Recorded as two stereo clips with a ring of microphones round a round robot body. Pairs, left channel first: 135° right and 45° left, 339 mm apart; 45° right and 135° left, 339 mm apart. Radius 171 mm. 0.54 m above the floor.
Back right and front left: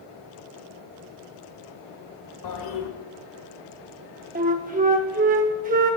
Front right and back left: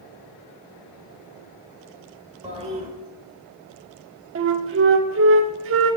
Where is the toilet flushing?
155° right, 1.6 m.